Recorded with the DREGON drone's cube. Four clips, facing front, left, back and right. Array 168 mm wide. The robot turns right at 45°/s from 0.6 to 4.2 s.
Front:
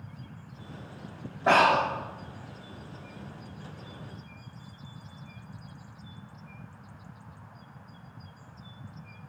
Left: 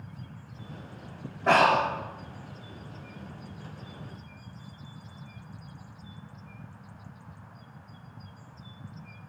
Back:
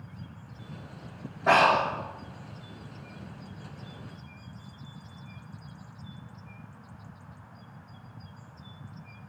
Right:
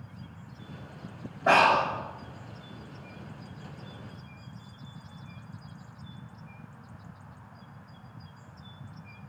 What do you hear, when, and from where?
1.5 s breathing: 15° right, 1.6 m; by 1.9 s 5° left, 1.6 m